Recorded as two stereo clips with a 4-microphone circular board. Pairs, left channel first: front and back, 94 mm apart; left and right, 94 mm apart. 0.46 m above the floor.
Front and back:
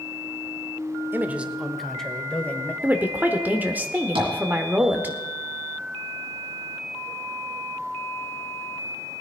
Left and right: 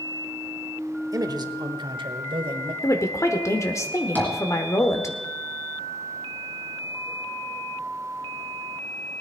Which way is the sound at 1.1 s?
120° right.